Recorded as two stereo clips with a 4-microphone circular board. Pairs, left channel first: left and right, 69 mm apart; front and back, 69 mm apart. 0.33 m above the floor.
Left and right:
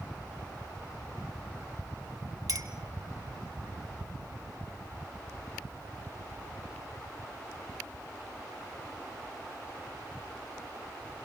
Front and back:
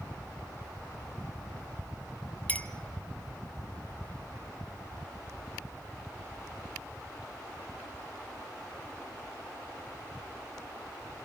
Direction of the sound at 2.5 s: 65° right.